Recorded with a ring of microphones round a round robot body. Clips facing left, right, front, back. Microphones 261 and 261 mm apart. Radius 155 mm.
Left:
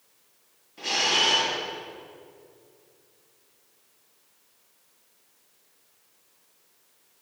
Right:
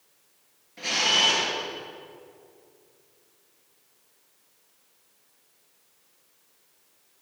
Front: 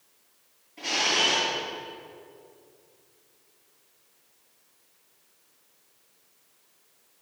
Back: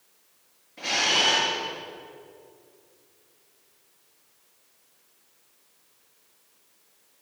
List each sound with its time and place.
0.8 s a camera shutter: 100° right, 4.5 m